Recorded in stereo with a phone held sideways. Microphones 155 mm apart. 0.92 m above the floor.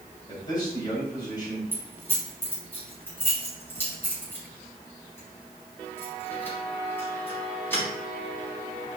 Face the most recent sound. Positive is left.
turn(degrees=15)  # may be behind; listen again after turning